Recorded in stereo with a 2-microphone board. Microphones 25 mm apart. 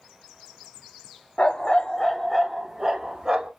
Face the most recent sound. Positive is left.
turn(degrees=-30)  # may be behind; listen again after turning